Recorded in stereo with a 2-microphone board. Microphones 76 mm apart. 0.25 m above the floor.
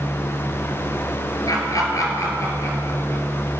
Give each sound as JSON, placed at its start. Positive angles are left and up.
{"t": 1.5, "sound": "laughter", "side_deg": 55, "distance_m": 3.5}